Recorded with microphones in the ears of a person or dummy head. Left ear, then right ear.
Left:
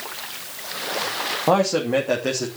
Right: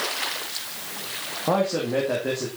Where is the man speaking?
70° left (ahead or behind), 2.5 m; by 2.5 s 85° left, 3 m.